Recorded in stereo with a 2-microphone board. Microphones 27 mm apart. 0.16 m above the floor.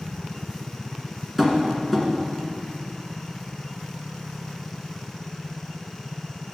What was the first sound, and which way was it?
Tapping, centre (ahead or behind).